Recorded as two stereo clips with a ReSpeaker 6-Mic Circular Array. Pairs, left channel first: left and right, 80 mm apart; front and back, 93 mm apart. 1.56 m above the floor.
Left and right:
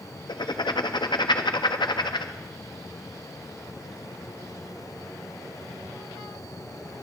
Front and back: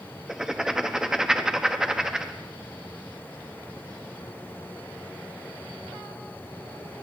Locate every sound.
0.3 s writing: 95° left, 0.6 m